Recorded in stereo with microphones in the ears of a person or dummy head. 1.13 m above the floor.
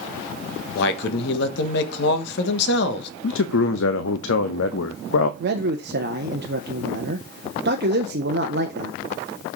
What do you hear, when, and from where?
0.8 s a man speaking: 60° left (ahead or behind), 1.3 m
3.2 s a man speaking: 70° left (ahead or behind), 0.6 m
5.4 s a man speaking: 50° right (ahead or behind), 0.6 m